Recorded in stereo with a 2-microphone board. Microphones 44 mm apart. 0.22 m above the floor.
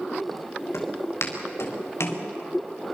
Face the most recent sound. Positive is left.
turn(degrees=90)